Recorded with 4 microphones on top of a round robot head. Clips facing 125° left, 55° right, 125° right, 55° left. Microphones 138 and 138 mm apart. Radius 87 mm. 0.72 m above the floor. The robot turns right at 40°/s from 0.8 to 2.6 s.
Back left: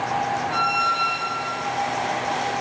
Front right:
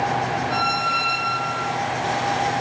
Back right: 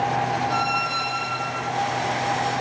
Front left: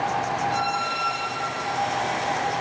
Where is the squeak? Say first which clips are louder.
Front right 1 dB, back right 1 dB; 85° right, 5.5 m; by 1.7 s 50° right, 5.5 m.